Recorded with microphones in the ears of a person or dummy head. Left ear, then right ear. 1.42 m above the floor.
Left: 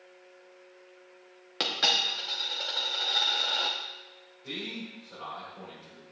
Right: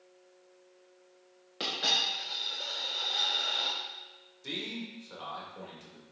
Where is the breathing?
I don't hear breathing.